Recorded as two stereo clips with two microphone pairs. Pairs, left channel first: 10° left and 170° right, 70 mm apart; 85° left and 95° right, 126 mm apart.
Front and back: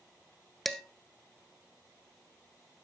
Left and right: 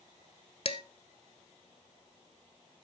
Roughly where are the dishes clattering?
Left.